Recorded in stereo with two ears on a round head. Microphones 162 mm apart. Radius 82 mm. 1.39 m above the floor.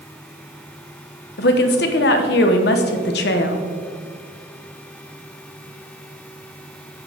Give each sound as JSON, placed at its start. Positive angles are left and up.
{"t": 1.4, "sound": "a woman speaking", "side_deg": 60, "distance_m": 1.1}